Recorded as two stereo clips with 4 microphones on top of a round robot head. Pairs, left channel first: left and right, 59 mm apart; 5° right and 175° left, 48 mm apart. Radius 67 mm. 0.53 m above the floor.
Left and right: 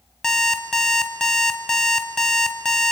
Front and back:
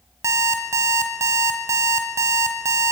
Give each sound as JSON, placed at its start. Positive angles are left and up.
{"t": 0.2, "sound": "an alarm clock", "azimuth_deg": 170, "distance_m": 2.5}